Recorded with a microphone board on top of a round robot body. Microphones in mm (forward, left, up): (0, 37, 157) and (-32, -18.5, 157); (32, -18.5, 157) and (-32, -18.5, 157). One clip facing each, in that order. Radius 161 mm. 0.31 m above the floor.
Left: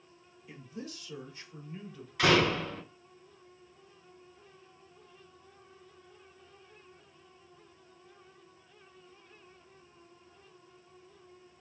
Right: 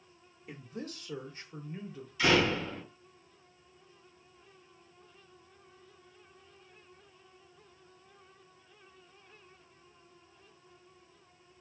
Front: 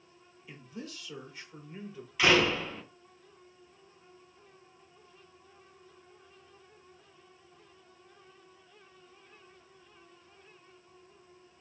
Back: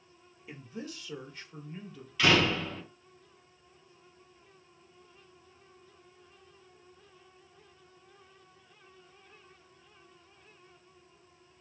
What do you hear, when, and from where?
0.5 s a man speaking: 125° right, 1.2 m; by 2.1 s 50° right, 1.1 m
2.2 s a door slam: 75° left, 1.7 m